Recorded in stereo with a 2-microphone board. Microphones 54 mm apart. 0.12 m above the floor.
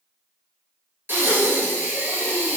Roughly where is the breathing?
Right.